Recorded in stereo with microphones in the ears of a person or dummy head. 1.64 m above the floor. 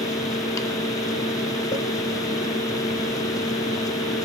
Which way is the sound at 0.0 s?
15° left (ahead or behind).